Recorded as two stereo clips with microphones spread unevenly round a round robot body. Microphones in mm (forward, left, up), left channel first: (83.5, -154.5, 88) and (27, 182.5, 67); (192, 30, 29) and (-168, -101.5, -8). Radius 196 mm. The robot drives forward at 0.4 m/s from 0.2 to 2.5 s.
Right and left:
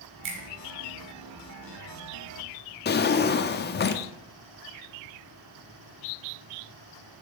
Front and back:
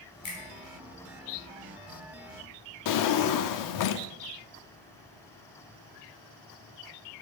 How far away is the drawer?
About 0.6 m.